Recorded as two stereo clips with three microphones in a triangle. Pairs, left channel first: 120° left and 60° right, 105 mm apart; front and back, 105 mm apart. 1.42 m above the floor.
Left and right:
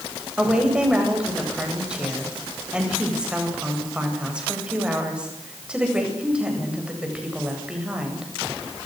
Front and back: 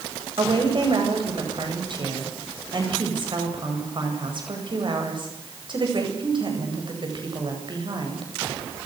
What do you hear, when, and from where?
0.4 s a woman speaking: 140° right, 9 m